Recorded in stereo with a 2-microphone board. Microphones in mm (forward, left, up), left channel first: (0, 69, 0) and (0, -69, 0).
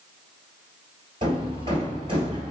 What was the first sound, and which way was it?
Hammering, 40° right (ahead or behind).